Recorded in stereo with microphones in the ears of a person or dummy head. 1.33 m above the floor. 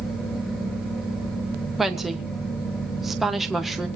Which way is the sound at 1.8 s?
5° left (ahead or behind).